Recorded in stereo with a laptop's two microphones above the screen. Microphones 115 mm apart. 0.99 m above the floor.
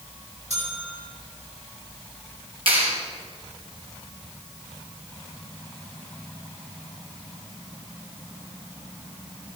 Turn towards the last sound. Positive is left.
turn(degrees=-50)  # may be behind; listen again after turning